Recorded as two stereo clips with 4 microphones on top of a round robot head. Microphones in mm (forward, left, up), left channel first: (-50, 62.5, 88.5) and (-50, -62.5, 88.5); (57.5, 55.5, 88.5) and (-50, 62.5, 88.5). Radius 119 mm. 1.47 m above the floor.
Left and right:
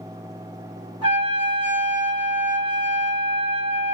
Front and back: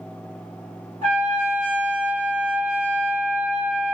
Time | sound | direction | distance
1.0 | a trumpet | 15° left | 1.4 m